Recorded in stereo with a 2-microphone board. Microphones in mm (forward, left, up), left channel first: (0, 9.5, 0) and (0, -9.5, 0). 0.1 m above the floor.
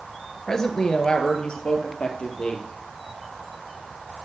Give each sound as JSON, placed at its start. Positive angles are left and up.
{"t": 0.5, "sound": "a woman speaking", "side_deg": 35, "distance_m": 1.7}